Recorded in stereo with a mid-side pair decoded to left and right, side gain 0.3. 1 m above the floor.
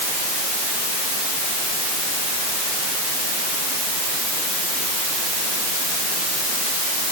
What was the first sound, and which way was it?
Only background noise.